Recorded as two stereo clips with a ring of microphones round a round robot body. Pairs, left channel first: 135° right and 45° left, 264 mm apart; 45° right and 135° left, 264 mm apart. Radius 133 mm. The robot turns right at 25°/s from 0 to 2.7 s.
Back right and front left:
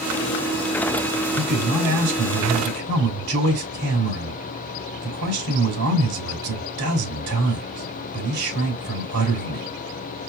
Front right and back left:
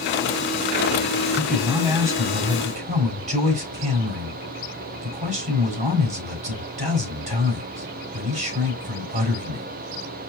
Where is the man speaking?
40° left, 3.5 m; by 9.7 s 70° left, 3.5 m.